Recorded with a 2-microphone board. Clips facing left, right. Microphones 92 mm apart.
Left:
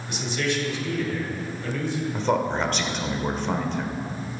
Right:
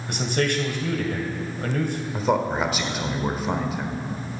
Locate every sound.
0.1 s a man speaking: 60° right (ahead or behind), 2 m
2.1 s a man speaking: 5° right (ahead or behind), 1.4 m